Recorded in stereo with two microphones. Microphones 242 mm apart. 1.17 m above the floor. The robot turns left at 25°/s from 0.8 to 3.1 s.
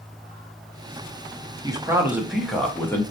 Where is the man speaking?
160° right, 0.7 m; by 3.0 s 165° left, 0.7 m.